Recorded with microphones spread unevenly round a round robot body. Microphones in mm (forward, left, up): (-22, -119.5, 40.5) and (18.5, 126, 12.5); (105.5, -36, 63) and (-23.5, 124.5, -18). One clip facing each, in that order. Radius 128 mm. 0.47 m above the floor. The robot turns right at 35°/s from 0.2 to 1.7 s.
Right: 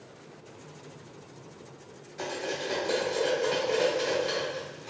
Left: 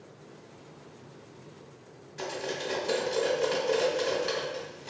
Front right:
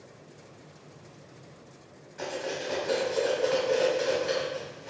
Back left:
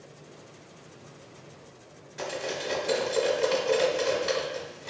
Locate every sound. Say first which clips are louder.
2.2 s cutlery clinking: right 1 dB, even; 145° left, 0.8 m